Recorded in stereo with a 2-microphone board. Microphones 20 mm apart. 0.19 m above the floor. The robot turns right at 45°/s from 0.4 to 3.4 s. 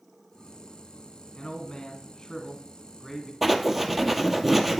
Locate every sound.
1.4 s a man speaking: 70° left, 1.8 m; by 3.3 s 160° left, 1.8 m
3.4 s writing: centre (ahead or behind), 1.1 m